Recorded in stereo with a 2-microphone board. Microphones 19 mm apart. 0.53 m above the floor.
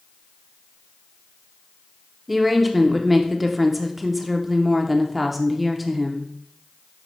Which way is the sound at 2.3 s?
10° right (ahead or behind).